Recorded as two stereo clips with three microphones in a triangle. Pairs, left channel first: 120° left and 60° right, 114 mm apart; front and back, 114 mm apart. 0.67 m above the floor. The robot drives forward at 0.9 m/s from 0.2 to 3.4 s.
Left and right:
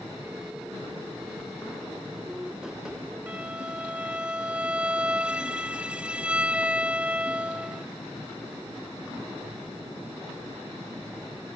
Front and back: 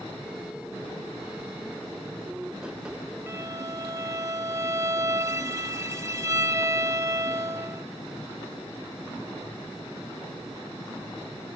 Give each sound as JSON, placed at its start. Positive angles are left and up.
{"t": 3.3, "sound": "a violin", "azimuth_deg": -125}